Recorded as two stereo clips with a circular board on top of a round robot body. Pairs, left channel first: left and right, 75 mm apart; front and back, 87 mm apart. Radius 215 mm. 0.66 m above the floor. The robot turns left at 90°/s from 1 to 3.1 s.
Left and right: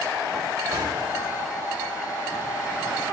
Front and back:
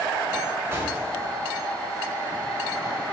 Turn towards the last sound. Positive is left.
turn(degrees=55)